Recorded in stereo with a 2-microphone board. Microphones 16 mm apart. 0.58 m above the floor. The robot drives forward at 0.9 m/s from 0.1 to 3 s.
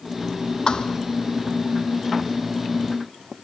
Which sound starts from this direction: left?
A thud, at 0.7 s.